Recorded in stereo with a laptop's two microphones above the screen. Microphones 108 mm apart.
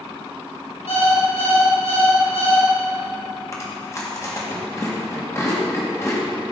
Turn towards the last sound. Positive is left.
turn(degrees=30)  # may be behind; listen again after turning